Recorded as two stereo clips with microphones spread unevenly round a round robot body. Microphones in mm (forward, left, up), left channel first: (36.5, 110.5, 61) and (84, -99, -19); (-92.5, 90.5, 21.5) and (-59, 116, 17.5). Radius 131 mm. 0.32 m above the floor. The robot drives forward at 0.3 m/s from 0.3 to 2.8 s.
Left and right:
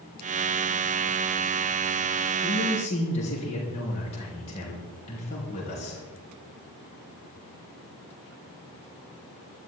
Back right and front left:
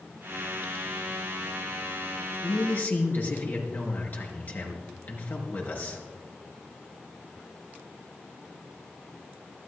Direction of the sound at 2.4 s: 170° left.